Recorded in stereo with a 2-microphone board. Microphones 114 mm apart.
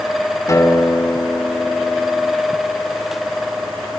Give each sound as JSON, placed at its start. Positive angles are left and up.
{"t": 0.5, "sound": "a guitar", "side_deg": 30, "distance_m": 2.5}